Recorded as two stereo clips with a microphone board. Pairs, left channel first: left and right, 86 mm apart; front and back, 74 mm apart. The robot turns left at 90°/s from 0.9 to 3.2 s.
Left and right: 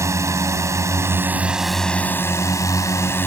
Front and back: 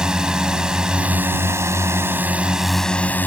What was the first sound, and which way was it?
A drone, 105° right.